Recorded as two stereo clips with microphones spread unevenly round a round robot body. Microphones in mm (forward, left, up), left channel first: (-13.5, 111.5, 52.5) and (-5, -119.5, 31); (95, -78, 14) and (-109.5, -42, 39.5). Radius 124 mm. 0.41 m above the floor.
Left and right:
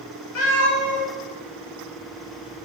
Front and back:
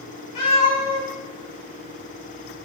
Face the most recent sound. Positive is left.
turn(degrees=55)